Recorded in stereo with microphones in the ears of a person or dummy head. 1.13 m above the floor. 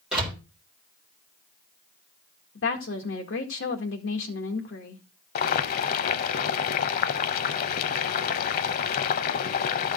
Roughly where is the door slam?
Centre.